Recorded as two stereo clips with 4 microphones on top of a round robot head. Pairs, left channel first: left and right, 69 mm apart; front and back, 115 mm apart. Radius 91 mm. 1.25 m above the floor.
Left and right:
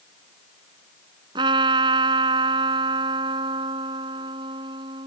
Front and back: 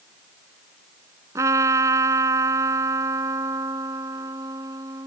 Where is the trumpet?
110° right.